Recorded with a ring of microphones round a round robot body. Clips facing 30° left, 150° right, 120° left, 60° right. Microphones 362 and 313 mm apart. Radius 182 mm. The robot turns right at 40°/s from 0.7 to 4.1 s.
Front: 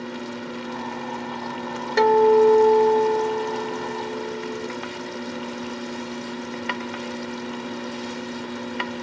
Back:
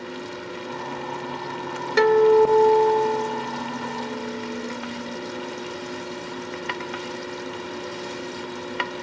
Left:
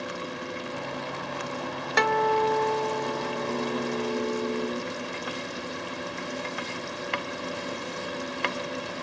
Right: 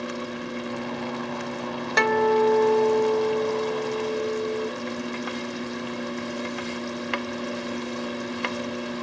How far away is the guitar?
About 0.6 m.